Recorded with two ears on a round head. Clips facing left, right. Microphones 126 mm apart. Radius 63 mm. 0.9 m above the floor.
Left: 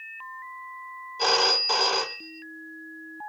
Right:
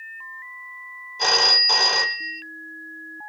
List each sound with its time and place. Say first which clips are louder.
1.2 s a phone ringing: even; centre (ahead or behind), 0.7 m